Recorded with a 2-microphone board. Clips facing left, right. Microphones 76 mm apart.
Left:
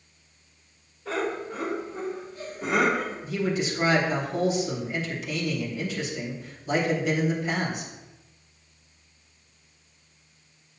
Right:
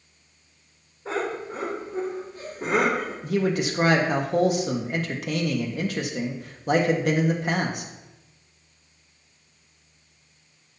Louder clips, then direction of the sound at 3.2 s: Right 5 dB; 60° right (ahead or behind).